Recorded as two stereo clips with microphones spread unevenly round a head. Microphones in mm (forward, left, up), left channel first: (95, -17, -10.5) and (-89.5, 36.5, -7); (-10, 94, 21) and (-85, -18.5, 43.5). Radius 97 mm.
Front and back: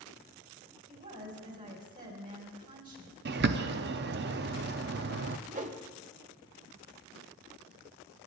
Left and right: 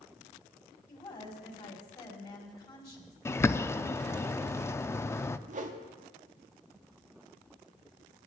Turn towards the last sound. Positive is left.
turn(degrees=-145)